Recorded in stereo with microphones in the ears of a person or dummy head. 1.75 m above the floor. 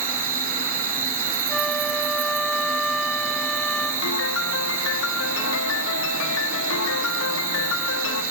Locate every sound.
0.0 s an insect: 15° right (ahead or behind), 9 m
1.5 s a flute: centre (ahead or behind), 2.5 m
4.0 s a piano: 75° left (ahead or behind), 1.7 m